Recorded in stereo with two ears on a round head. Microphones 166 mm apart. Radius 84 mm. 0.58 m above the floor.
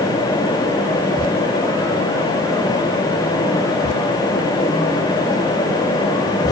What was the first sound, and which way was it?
Only background noise.